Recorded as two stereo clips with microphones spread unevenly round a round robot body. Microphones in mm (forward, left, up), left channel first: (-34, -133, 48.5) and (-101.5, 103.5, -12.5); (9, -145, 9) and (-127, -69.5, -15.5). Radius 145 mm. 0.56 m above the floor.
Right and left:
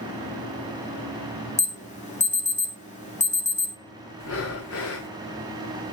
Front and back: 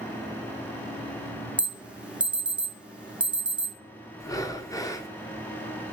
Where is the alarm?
140° right, 2.0 m.